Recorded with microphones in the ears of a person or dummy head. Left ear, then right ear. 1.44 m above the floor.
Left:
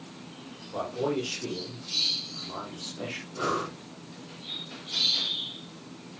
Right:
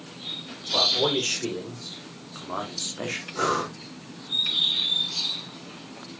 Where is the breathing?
55° right (ahead or behind), 5 m.